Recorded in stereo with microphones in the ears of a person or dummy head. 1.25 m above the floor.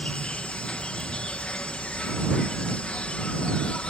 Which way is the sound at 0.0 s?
10° left (ahead or behind).